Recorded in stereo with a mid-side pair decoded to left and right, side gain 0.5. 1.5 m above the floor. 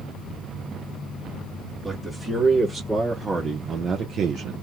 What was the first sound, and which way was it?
A man speaking, 5° right.